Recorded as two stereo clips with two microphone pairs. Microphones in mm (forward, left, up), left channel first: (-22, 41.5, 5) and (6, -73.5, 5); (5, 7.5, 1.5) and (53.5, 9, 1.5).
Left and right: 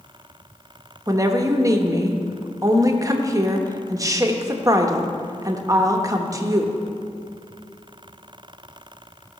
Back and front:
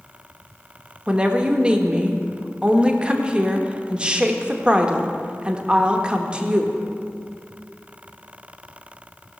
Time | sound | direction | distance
1.1 | a woman speaking | 45° right | 1.0 m